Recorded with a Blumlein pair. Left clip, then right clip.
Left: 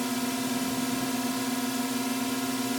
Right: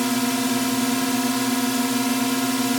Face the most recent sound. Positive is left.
turn(degrees=-65)